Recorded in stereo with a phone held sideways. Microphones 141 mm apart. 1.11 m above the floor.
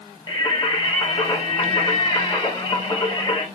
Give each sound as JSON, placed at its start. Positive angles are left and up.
{"t": 0.3, "sound": "singing", "side_deg": 35, "distance_m": 2.0}